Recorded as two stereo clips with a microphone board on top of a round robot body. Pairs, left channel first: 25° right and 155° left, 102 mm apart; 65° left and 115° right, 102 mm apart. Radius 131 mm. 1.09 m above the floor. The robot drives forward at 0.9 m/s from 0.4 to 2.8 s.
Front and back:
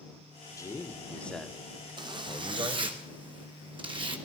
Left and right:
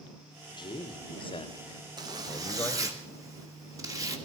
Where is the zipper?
160° right, 1.3 m; by 4.2 s 165° right, 2 m.